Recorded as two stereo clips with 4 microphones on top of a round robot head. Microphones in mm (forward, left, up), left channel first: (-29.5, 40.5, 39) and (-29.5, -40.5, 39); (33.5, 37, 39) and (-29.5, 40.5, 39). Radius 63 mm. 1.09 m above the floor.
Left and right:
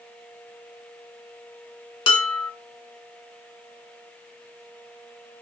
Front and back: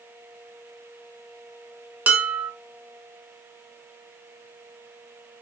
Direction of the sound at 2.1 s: 115° left.